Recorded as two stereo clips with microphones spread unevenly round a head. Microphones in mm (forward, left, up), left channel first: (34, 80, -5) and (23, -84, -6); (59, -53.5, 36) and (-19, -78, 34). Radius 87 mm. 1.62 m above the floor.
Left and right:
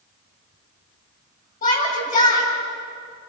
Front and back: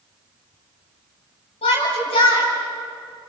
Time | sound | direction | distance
1.6 | a shout | 45° left | 8.5 m